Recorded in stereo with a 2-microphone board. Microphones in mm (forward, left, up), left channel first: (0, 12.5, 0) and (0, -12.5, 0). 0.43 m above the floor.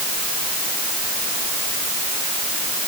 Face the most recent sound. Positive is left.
No sound to turn to.